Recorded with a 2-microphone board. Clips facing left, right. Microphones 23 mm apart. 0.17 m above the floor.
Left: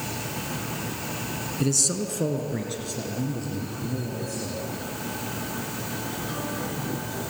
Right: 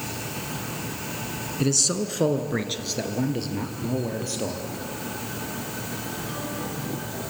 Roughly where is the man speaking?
Centre.